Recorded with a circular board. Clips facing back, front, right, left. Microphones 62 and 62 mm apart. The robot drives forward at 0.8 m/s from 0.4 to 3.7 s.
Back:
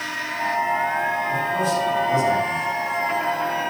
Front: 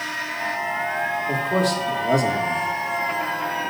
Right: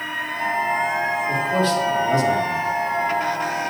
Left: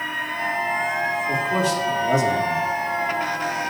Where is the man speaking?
15° left, 4 m; by 2.7 s 20° left, 3 m.